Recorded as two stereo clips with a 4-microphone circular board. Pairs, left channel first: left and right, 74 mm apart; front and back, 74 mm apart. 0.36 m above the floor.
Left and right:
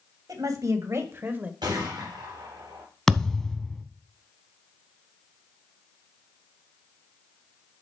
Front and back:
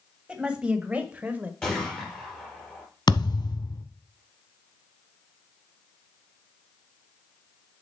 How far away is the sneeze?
No sneeze in this recording.